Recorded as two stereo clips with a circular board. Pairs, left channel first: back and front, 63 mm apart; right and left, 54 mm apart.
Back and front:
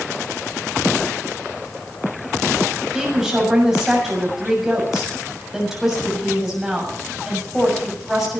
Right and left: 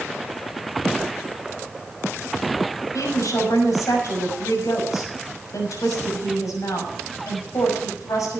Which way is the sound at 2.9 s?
85° right.